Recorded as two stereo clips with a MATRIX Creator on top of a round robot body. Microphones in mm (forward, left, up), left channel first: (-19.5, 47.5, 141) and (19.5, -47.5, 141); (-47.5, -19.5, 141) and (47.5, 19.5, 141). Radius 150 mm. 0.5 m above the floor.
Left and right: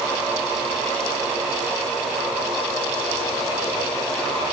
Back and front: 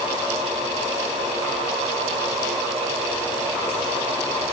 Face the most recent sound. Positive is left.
No sound to turn to.